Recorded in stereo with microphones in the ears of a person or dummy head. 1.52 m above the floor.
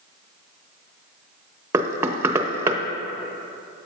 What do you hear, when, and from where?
1.7 s knocking: 10° right (ahead or behind), 0.7 m